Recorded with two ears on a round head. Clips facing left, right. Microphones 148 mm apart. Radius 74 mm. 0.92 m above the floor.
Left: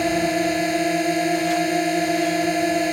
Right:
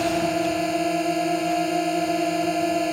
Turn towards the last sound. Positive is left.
turn(degrees=10)  # may be behind; listen again after turning